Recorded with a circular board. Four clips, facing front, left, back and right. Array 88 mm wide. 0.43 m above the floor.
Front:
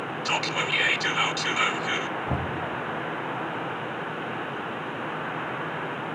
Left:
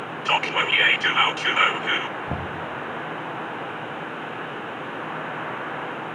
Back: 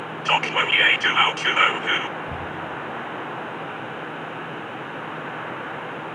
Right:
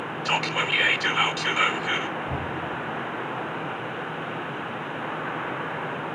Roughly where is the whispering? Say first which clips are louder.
Left 4 dB, back 7 dB; behind left.